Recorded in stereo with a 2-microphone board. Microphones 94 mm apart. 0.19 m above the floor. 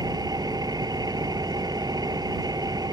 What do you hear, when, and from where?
0.0 s an engine running: 40° right (ahead or behind)